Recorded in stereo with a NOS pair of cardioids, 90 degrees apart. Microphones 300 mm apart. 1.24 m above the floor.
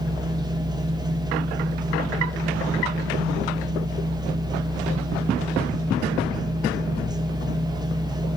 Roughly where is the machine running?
Ahead.